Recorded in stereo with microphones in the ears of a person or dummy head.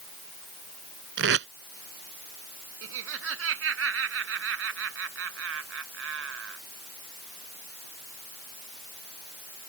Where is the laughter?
85° right.